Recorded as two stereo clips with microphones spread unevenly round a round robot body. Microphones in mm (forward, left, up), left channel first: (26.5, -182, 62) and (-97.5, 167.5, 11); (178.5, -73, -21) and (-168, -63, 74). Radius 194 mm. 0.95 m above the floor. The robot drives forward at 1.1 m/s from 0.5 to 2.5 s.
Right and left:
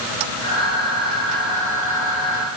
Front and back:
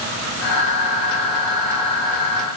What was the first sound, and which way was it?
Only background noise.